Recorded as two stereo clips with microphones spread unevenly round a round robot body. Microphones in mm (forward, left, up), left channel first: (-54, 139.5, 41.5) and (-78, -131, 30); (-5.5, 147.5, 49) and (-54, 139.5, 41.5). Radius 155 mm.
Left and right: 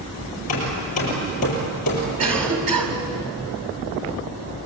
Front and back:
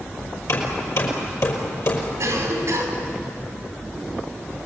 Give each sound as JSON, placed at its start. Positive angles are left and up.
{"t": 0.5, "sound": "hammering", "azimuth_deg": 20, "distance_m": 5.5}
{"t": 2.2, "sound": "a cough", "azimuth_deg": -115, "distance_m": 5.0}